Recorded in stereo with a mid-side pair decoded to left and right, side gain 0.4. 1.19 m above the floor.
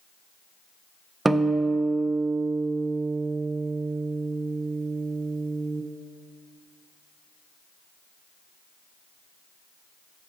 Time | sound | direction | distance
1.2 | a guitar | 25° right | 0.6 m